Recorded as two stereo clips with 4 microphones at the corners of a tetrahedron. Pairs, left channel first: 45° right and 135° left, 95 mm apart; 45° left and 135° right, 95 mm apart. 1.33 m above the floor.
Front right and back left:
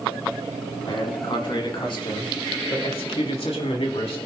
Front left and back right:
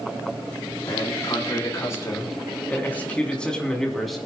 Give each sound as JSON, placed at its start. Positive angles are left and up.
{"t": 0.9, "sound": "a man speaking", "azimuth_deg": -5, "distance_m": 4.0}